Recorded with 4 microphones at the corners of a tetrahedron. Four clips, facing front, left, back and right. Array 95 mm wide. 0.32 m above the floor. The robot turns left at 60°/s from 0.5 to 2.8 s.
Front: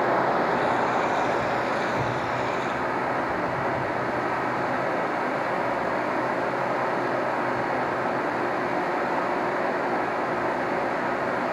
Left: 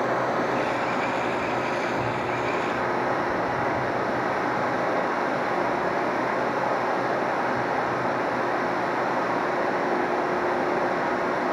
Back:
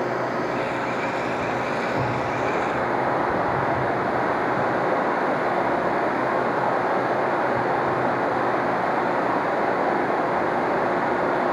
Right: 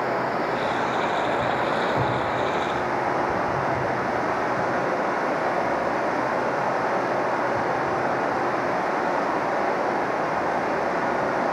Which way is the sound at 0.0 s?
15° right.